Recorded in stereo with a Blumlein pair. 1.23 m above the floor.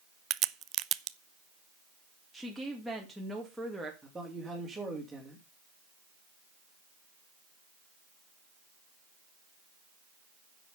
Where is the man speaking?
5° right, 3 m.